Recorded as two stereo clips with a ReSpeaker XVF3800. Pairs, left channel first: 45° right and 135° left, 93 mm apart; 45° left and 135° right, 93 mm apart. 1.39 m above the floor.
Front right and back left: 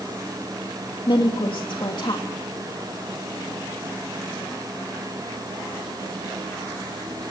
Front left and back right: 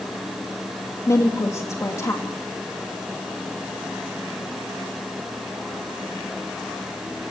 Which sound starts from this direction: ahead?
A woman speaking, at 1.1 s.